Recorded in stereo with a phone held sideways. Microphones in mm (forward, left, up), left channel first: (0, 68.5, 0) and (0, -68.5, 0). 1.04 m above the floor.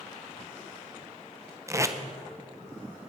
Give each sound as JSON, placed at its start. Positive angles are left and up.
{"t": 1.7, "sound": "tape being pulled", "side_deg": -20, "distance_m": 0.7}